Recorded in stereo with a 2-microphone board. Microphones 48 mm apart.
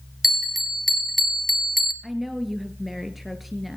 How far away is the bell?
About 1.6 m.